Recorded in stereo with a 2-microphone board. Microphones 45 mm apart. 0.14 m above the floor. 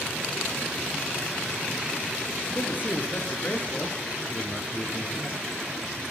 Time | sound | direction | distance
2.5 | a man speaking | 40° left (ahead or behind) | 2 m